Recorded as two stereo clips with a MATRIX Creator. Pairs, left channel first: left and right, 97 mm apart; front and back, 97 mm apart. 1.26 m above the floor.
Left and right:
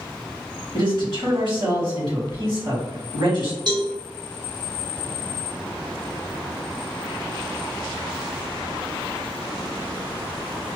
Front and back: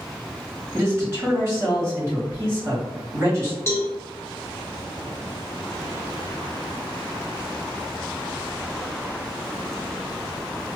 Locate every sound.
0.7 s a man speaking: 120° right, 1.6 m
3.7 s a cowbell: 60° right, 0.9 m